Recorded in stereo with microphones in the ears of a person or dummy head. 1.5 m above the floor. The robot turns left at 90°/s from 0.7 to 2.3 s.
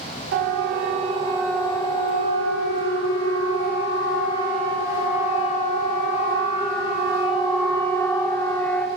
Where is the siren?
65° right (ahead or behind), 6.5 m; by 8.9 s 10° left (ahead or behind), 5 m.